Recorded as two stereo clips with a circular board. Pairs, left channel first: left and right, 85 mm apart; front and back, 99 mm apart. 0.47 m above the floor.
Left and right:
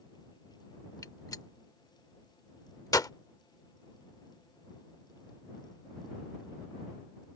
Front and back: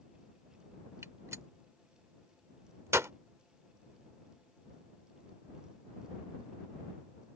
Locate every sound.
1.0 s a gunshot: 120° left